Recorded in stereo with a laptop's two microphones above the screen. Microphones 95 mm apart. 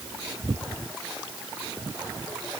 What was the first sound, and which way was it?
Only background noise.